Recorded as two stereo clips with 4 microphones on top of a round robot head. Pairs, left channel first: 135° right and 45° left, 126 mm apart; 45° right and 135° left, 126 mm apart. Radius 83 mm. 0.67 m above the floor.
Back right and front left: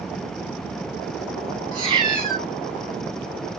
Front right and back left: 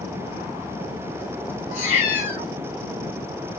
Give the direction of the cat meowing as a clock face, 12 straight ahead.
12 o'clock.